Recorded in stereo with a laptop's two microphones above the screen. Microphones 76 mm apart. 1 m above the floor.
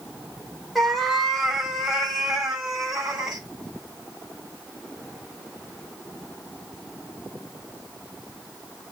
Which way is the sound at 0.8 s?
Centre (ahead or behind).